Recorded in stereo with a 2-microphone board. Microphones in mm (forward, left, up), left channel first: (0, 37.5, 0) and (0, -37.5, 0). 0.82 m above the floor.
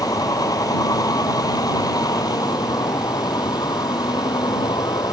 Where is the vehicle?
55° left (ahead or behind); by 5.1 s 65° left (ahead or behind).